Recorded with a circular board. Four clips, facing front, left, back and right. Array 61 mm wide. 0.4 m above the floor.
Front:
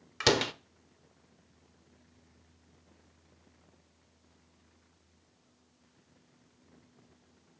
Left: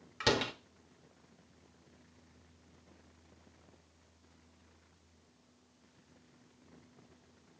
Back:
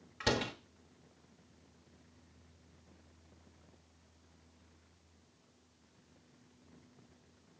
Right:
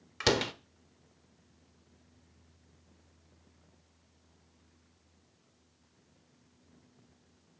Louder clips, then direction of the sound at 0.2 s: Right 3 dB, front 6 dB; 20° right.